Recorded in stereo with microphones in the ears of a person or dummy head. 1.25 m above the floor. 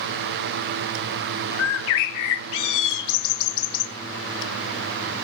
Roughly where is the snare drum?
I don't hear a snare drum.